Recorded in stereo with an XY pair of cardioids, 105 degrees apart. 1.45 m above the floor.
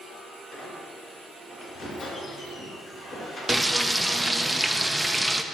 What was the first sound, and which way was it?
A squeak, 50° left.